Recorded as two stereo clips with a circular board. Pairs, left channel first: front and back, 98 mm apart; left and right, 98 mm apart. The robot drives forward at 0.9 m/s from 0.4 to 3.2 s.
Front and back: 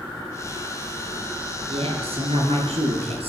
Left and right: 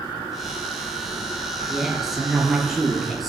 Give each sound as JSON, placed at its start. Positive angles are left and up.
{"t": 1.7, "sound": "a woman speaking", "azimuth_deg": -175, "distance_m": 4.0}